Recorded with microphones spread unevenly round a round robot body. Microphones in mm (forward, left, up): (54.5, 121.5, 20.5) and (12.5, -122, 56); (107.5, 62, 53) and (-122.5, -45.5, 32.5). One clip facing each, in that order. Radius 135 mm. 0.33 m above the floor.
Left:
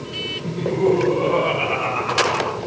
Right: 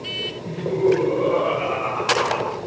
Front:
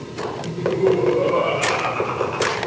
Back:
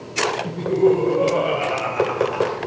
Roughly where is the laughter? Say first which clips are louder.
Even, back 1 dB; behind left.